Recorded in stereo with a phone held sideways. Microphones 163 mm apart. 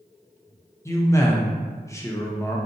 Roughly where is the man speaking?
Centre.